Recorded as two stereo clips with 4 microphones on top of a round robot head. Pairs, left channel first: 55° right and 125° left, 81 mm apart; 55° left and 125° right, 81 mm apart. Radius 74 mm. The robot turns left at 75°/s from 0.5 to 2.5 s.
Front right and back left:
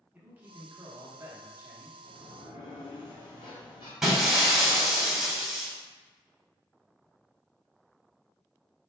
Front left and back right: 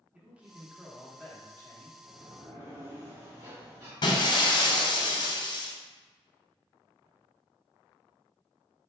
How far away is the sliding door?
About 1.5 m.